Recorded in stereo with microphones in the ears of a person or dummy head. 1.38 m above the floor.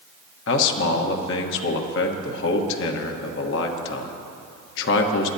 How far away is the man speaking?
About 1.2 m.